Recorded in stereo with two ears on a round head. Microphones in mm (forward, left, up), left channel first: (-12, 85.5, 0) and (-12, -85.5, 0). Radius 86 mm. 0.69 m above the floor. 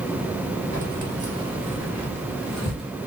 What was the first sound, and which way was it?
Keys jangling, 45° right (ahead or behind).